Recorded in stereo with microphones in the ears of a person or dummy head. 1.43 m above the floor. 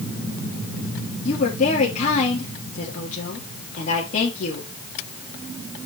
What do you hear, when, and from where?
1.2 s a woman speaking: 40° left (ahead or behind), 2.5 m